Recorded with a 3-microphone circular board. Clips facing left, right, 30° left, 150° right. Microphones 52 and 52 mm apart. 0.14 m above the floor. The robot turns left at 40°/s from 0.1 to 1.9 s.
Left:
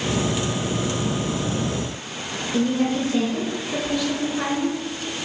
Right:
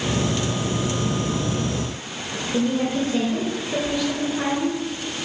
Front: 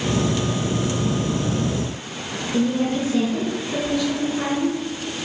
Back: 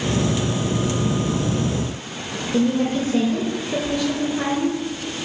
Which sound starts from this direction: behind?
A woman speaking, at 2.5 s.